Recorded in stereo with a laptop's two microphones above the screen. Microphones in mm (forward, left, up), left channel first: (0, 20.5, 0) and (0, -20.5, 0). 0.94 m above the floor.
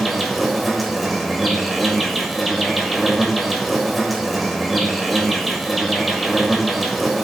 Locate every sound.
0.0 s an insect: centre (ahead or behind), 1.7 m